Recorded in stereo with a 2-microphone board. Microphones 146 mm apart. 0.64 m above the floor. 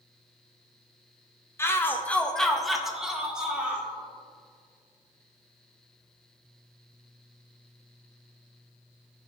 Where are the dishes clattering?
I don't hear dishes clattering.